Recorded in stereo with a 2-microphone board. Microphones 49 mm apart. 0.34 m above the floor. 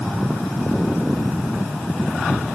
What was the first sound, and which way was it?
Only background noise.